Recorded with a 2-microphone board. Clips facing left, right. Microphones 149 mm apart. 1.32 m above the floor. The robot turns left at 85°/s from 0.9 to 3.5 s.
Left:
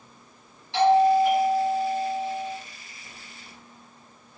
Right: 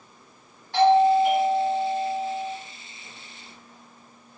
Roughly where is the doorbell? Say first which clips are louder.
Right 1 dB; ahead right.